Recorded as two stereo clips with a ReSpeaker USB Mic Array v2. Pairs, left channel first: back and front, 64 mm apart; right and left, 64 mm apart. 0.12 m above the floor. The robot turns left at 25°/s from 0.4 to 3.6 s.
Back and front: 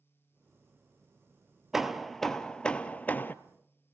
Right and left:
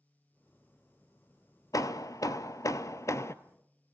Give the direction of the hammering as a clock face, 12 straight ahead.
3 o'clock.